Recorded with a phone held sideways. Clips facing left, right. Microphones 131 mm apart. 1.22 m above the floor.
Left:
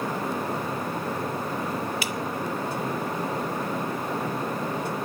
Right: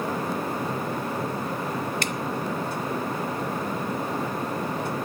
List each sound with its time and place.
2.0 s dripping: 5° left (ahead or behind), 0.5 m